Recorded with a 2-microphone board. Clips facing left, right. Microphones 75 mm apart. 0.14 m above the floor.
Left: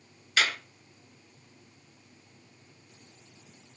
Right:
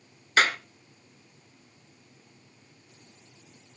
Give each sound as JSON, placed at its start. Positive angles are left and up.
{"t": 0.4, "sound": "a clap", "side_deg": -40, "distance_m": 1.3}